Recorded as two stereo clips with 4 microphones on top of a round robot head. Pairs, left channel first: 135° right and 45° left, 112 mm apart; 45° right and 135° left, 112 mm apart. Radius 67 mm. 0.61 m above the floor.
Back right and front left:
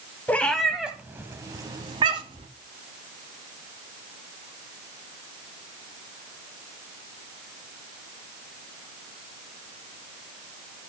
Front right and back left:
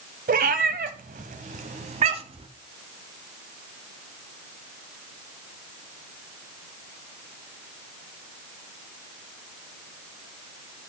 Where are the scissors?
I don't hear scissors.